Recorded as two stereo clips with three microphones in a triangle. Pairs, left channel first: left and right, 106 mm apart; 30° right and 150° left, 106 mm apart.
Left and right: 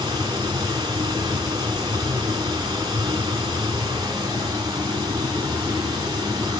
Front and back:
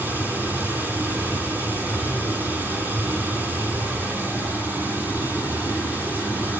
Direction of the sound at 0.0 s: 135° right.